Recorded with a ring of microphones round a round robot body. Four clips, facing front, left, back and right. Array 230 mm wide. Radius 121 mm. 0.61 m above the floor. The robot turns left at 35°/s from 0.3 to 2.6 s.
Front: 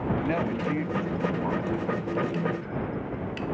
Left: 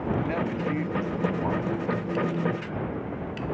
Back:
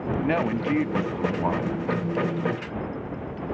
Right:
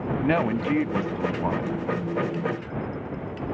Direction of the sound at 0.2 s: 115° right.